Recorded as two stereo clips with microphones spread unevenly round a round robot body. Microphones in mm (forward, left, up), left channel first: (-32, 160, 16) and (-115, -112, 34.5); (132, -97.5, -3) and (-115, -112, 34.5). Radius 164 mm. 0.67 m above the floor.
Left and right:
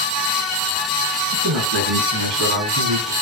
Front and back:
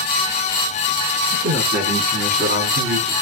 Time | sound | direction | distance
1.3 | a man speaking | 130° right | 8.5 m